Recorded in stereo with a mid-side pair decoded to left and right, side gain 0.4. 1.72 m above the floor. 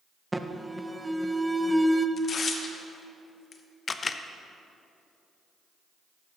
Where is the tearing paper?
50° left, 0.9 m.